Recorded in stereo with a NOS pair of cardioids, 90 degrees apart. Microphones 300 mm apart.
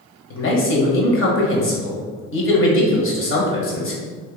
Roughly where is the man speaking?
Ahead left.